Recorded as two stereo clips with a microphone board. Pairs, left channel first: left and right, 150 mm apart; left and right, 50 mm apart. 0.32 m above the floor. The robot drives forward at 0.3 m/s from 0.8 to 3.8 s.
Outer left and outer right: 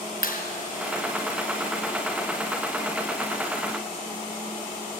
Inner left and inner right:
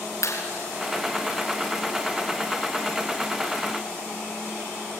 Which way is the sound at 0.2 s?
75° left (ahead or behind).